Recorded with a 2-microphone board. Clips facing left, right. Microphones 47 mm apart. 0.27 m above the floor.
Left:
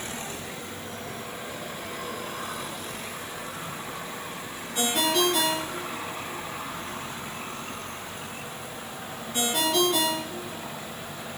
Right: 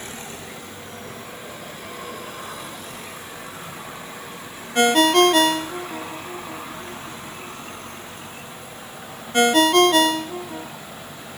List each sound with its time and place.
4.8 s a ringtone: 60° right (ahead or behind), 1.3 m